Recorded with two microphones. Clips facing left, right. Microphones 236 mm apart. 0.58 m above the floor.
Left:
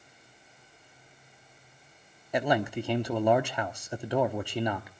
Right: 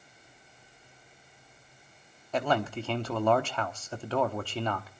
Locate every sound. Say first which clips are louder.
2.3 s a man speaking: left 2 dB; 15° left (ahead or behind), 1.0 m